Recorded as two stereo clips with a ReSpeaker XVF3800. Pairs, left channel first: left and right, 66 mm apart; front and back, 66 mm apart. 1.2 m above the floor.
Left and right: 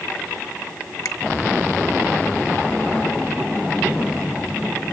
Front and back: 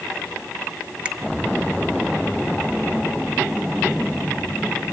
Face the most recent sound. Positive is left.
turn(degrees=110)